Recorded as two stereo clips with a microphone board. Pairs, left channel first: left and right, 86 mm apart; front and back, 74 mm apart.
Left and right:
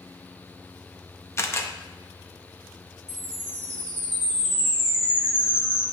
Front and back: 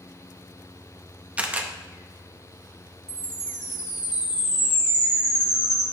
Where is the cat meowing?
No cat meowing in this recording.